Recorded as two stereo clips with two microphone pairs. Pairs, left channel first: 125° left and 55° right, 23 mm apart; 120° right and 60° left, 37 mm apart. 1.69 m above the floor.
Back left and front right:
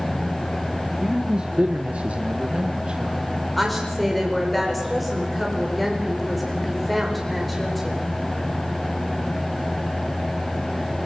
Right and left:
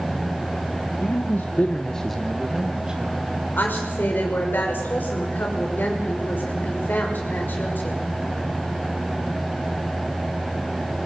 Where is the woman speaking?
145° right, 6 m.